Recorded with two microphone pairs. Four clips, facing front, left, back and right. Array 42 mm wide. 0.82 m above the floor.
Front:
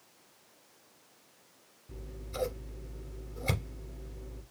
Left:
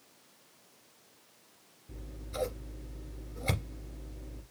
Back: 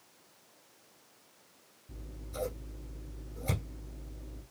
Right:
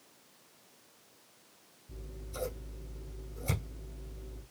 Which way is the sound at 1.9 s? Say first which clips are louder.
Left 3 dB, front 2 dB; 60° left.